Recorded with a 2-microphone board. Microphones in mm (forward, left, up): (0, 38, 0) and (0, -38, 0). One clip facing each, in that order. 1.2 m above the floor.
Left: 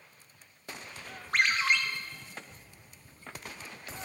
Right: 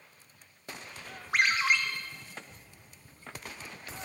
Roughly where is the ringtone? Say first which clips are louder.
Right 1 dB; centre.